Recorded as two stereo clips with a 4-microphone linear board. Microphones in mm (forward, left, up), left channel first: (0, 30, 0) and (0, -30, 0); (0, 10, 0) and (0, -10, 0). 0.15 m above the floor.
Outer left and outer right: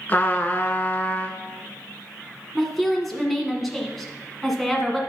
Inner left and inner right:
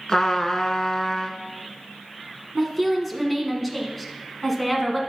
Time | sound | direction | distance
0.1 | a trumpet | 30° left (ahead or behind) | 0.9 m
2.5 | a woman speaking | centre (ahead or behind) | 1.6 m